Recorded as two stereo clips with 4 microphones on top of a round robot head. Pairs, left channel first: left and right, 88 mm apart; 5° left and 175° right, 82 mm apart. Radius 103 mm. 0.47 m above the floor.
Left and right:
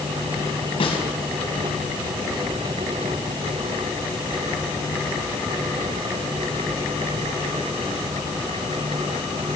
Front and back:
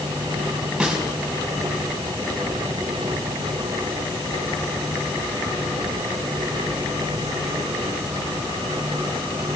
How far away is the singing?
No singing in this recording.